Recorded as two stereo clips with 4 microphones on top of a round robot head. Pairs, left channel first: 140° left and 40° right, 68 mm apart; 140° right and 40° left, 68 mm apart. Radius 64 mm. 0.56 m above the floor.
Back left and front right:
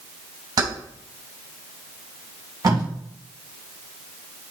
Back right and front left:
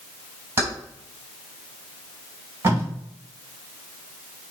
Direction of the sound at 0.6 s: 15° right.